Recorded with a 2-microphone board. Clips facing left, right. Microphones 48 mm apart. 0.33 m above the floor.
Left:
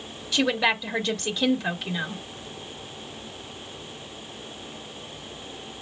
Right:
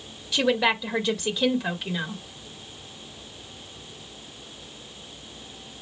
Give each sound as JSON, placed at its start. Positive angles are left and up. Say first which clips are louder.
{"t": 0.3, "sound": "a woman speaking", "louder": "right 1 dB", "side_deg": -5, "distance_m": 1.2}